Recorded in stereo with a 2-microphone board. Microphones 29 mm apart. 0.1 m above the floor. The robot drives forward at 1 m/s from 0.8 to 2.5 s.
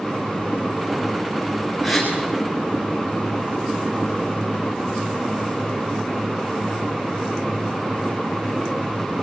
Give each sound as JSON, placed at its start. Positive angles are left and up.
{"t": 1.8, "sound": "a gasp", "side_deg": -5, "distance_m": 6.0}